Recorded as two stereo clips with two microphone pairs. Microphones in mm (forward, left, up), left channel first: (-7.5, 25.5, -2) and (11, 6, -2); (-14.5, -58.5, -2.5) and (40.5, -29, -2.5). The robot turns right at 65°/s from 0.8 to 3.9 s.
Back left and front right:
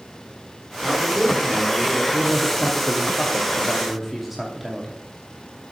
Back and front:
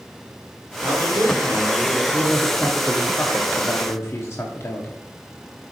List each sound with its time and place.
0.8 s a man speaking: straight ahead, 1.9 m; by 2.0 s 80° left, 1.9 m
2.1 s a man speaking: 105° left, 0.9 m; by 5.0 s 140° right, 0.9 m